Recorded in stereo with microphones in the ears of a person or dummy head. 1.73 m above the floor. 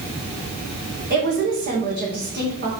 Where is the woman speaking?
50° right (ahead or behind), 2.5 m.